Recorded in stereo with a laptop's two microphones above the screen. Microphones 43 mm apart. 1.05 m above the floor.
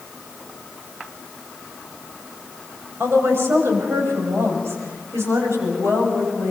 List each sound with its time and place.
3.0 s a woman speaking: 70° right (ahead or behind), 6.5 m; by 6.5 s 85° right, 7.5 m